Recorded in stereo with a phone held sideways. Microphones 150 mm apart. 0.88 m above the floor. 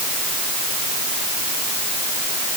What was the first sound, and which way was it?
Only background noise.